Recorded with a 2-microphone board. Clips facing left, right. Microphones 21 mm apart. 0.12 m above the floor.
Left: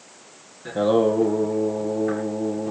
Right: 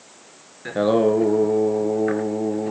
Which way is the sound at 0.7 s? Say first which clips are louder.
Right 1 dB; 40° right (ahead or behind).